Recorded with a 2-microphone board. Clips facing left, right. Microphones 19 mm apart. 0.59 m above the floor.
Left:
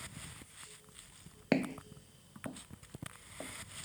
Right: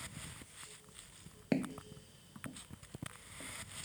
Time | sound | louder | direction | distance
1.5 | footsteps | left 3 dB | 25° left (ahead or behind) | ?